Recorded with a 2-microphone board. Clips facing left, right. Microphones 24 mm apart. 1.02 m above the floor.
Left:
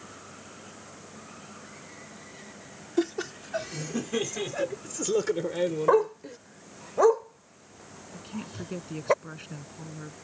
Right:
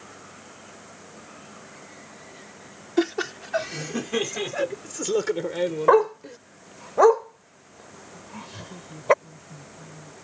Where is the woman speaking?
60° left (ahead or behind).